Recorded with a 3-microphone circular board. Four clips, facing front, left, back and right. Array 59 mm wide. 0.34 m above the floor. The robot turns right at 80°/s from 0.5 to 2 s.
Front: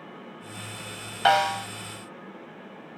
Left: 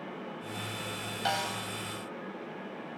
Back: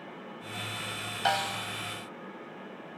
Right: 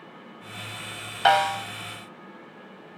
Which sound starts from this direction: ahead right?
A snare drum, at 1.2 s.